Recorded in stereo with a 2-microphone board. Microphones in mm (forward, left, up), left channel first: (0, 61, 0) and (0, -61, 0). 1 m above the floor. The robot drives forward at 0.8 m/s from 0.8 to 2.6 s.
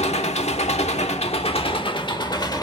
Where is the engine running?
70° left (ahead or behind), 1.0 m; by 2.6 s 35° left (ahead or behind), 1.7 m.